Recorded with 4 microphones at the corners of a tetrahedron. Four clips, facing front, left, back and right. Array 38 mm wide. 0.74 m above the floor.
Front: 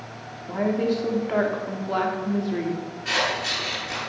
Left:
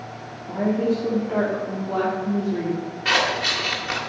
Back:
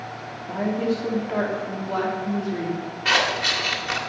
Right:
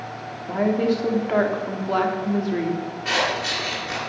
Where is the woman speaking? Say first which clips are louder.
Right 1 dB, front 1 dB; 80° right, 1.9 m.